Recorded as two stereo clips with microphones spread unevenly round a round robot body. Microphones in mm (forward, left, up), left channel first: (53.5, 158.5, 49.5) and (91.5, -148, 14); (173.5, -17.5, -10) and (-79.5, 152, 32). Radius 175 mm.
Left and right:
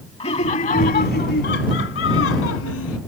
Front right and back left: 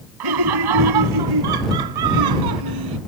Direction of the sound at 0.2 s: 170° left.